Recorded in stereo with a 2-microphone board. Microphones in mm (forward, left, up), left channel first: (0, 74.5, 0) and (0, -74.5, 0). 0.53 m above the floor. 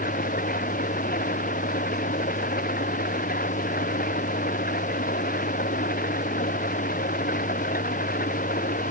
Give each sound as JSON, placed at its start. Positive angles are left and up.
{"t": 0.0, "sound": "an engine running", "side_deg": 80}